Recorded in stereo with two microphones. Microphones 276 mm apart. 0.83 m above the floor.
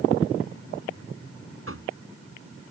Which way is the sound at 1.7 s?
50° right (ahead or behind).